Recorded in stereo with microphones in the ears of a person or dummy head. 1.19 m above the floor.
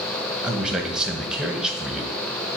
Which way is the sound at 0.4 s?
5° right (ahead or behind).